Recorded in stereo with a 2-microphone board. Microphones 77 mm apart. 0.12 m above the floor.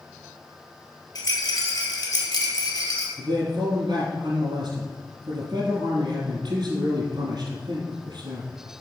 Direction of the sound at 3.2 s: 60° right (ahead or behind).